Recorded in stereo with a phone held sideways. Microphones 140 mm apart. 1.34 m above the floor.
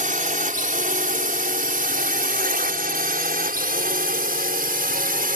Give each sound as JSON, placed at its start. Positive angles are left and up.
{"t": 0.0, "sound": "a drone", "side_deg": -65}